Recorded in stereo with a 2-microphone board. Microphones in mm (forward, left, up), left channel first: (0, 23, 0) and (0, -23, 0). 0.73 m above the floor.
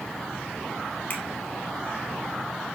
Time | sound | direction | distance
1.1 | a finger snap | 40° left (ahead or behind) | 2.5 m